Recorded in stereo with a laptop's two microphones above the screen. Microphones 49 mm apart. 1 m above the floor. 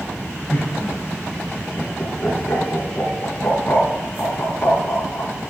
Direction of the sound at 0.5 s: 50° left (ahead or behind).